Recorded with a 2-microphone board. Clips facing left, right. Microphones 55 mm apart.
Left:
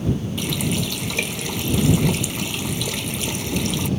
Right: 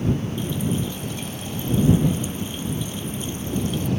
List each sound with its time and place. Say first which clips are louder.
0.4 s a running tap: left 1 dB; 80° left